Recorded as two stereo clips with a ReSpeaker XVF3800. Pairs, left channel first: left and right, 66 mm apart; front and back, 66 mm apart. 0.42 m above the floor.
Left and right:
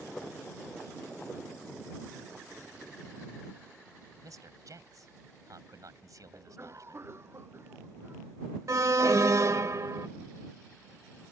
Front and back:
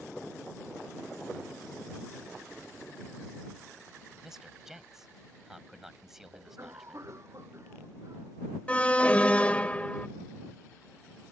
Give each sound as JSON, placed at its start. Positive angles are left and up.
{"t": 4.2, "sound": "a man speaking", "azimuth_deg": -95}
{"t": 6.3, "sound": "a cough", "azimuth_deg": -140}
{"t": 8.7, "sound": "an alarm", "azimuth_deg": -65}